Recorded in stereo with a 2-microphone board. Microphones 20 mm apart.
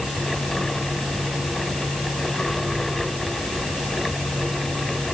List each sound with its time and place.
Only background noise.